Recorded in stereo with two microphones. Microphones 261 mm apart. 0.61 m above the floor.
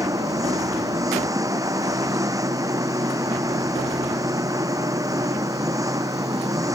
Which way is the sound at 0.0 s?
10° right (ahead or behind).